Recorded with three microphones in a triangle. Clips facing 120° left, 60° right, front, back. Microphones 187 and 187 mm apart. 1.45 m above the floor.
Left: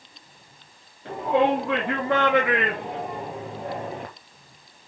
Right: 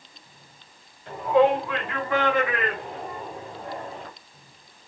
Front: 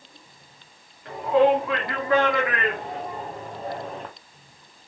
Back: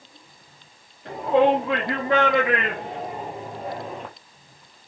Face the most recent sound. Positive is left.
turn(degrees=95)